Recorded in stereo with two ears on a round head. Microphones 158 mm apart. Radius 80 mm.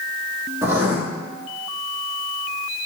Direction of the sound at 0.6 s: 15° right (ahead or behind).